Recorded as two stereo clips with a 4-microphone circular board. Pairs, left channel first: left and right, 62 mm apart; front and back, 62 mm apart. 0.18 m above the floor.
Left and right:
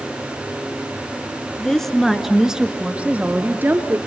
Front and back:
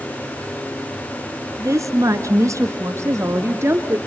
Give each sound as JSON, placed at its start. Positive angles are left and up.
{"t": 1.6, "sound": "a woman speaking", "azimuth_deg": 165, "distance_m": 2.0}